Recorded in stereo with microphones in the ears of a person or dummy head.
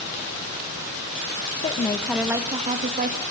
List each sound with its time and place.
1.6 s a woman speaking: 30° left (ahead or behind), 1.2 m; by 3.2 s 50° right (ahead or behind), 2.0 m